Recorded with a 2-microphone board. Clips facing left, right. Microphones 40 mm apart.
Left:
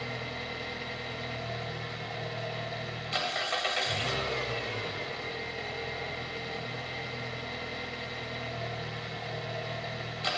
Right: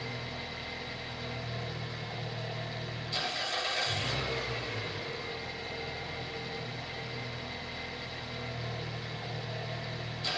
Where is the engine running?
50° left (ahead or behind), 1.1 m.